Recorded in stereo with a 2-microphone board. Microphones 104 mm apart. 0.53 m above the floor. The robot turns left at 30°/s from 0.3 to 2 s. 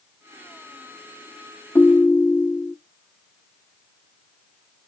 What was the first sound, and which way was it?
A ringtone, 25° left (ahead or behind).